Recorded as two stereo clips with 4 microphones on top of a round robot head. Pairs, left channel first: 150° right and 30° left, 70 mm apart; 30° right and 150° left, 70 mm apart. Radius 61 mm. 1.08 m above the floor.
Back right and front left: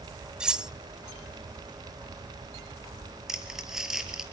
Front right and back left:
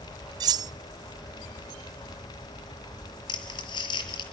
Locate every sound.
0.4 s cutlery clinking: 115° left, 0.5 m
3.3 s crumpling: 50° right, 6 m